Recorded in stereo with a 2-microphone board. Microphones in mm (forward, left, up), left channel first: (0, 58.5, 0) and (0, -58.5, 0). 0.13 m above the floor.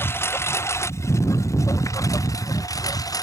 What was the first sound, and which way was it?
A lawn mower, 20° left (ahead or behind).